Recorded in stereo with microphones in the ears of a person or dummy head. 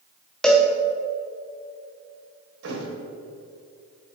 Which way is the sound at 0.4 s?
5° left (ahead or behind).